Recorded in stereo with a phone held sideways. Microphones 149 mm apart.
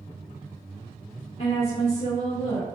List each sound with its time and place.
1.4 s a woman speaking: 45° left (ahead or behind), 0.7 m